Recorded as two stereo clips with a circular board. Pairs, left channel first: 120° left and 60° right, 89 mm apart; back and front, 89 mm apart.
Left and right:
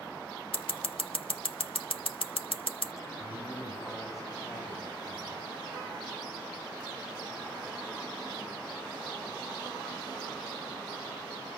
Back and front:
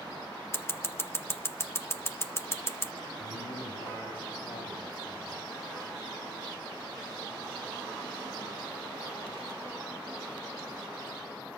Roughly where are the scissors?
Behind left.